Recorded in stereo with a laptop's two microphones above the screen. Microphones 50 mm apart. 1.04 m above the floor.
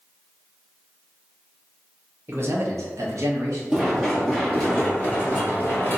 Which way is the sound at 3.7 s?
10° right (ahead or behind).